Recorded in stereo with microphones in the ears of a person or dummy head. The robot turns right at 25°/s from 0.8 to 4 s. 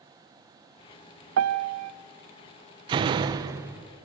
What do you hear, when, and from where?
1.4 s a piano: 75° right (ahead or behind), 0.7 m; by 1.9 s 80° right, 0.7 m
2.9 s a door slam: 30° right (ahead or behind), 0.7 m; by 3.9 s 20° right (ahead or behind), 0.7 m